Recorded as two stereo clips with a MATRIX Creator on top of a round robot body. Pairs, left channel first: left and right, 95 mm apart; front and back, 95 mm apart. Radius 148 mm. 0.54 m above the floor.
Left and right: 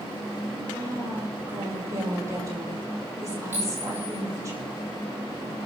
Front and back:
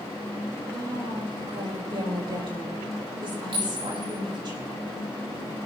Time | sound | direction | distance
0.7 | a woman speaking | 145° right | 4.5 m
3.5 | a clink | 155° right | 9 m